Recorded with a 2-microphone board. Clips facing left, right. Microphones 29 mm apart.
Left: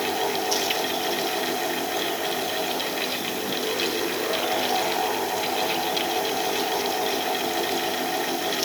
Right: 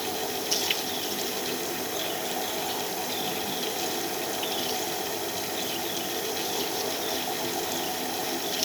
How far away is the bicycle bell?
I don't hear a bicycle bell.